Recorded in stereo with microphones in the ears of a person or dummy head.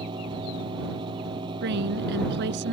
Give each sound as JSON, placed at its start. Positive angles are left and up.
{"t": 0.0, "sound": "a fan", "side_deg": -30}
{"t": 1.6, "sound": "a woman speaking", "side_deg": -65}